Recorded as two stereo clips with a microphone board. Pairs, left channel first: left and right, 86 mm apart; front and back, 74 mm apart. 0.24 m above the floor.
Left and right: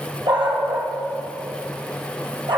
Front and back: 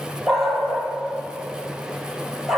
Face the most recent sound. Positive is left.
turn(degrees=-90)